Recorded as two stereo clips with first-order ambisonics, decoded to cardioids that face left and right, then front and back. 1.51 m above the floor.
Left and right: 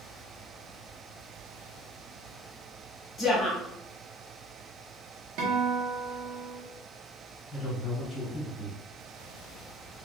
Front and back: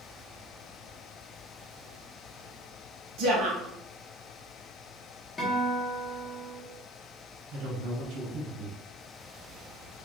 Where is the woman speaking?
160° left, 1.3 m.